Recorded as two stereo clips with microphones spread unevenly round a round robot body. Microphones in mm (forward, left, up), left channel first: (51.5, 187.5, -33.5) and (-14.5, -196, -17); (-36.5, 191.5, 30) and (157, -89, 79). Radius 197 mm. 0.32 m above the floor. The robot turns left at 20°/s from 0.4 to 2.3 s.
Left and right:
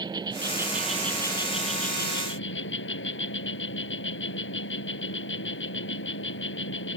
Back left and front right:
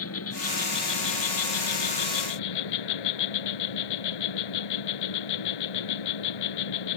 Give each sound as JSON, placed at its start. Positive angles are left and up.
{"t": 0.0, "sound": "an insect", "azimuth_deg": 180}